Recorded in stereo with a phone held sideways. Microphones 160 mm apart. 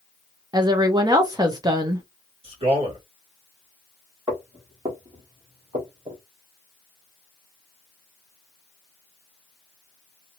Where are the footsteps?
30° right (ahead or behind), 2.0 m; by 6.2 s 45° right (ahead or behind), 2 m.